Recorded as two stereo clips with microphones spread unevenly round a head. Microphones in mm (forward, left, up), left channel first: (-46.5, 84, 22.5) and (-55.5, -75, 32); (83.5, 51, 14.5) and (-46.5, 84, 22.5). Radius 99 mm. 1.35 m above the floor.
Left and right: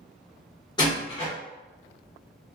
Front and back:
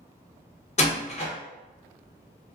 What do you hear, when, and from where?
0.8 s a door slam: 15° left, 0.8 m